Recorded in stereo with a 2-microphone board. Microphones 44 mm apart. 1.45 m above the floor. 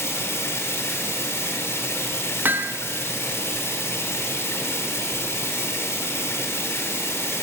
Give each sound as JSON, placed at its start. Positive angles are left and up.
{"t": 0.0, "sound": "running water", "side_deg": 80, "distance_m": 3.5}
{"t": 2.5, "sound": "hammering", "side_deg": -50, "distance_m": 1.0}